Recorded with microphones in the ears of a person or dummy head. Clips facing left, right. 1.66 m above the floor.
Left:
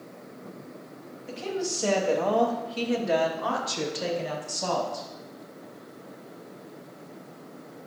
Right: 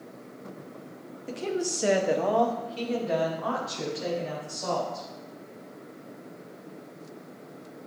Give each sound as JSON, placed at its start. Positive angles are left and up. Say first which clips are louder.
{"t": 1.3, "sound": "a woman speaking", "louder": "right 1 dB", "side_deg": -40, "distance_m": 1.1}